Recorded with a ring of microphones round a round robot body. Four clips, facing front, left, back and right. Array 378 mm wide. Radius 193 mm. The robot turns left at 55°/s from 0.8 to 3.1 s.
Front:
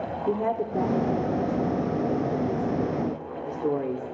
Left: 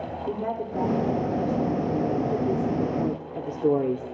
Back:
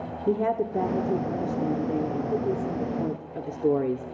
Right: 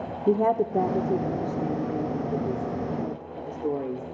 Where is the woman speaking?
110° right, 1.5 m; by 4.0 s 125° left, 1.5 m.